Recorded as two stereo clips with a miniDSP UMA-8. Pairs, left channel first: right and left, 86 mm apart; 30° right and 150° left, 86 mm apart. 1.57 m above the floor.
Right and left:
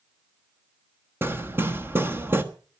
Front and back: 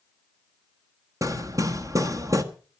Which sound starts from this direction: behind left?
Hammering, at 1.2 s.